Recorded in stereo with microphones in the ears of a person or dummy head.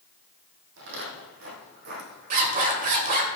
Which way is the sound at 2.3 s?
45° right (ahead or behind).